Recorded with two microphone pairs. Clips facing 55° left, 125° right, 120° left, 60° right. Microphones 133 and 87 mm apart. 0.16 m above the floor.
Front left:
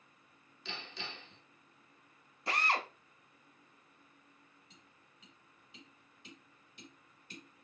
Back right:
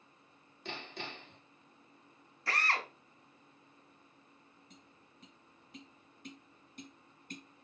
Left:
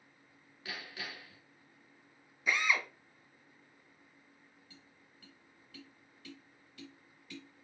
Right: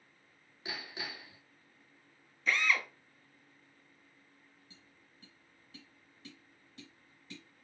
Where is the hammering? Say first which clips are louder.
Back right 3 dB, right 2 dB; 125° right, 1.1 m.